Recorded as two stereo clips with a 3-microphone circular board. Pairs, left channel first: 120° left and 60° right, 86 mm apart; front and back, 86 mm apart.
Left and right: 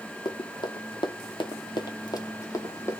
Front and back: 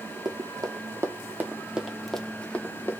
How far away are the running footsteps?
About 1.3 m.